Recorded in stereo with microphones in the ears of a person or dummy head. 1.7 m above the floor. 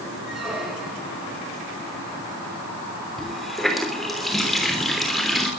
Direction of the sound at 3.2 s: 5° left (ahead or behind).